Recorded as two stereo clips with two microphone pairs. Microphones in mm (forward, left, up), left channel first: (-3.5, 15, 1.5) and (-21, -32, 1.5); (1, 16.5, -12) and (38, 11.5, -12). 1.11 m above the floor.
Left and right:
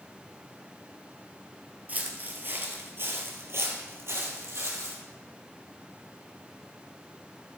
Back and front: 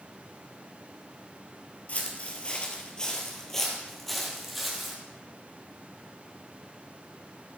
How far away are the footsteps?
About 1.7 m.